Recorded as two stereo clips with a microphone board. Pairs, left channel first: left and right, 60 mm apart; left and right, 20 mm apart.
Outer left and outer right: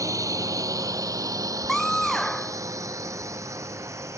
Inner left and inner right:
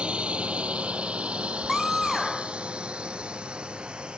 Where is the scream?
5° left (ahead or behind).